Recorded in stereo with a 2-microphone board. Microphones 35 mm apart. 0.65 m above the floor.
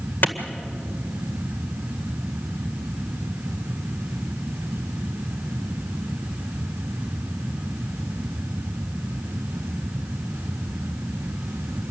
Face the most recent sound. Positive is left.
turn(degrees=50)  # may be behind; listen again after turning